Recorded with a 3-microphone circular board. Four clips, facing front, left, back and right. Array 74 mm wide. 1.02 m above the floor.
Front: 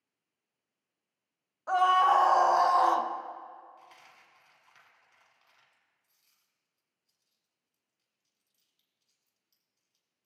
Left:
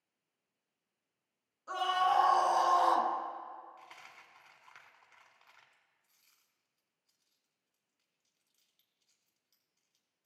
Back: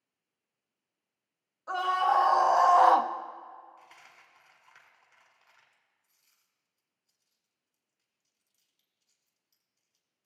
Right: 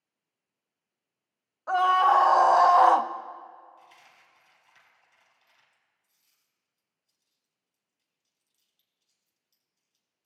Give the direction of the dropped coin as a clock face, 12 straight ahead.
9 o'clock.